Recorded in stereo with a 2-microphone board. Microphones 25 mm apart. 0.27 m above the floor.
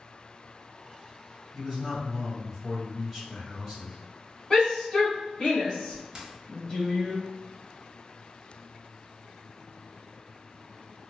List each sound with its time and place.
1.5 s a man speaking: 10° right (ahead or behind), 1.6 m
4.5 s a shout: 20° left (ahead or behind), 1.6 m
6.2 s a dropped coin: 30° right (ahead or behind), 0.6 m